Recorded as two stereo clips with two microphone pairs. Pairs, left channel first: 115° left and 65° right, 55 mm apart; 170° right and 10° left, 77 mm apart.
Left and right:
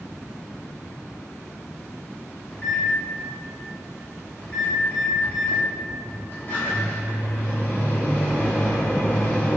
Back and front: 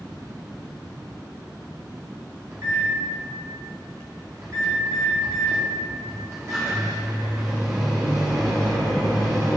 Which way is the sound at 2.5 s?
60° left.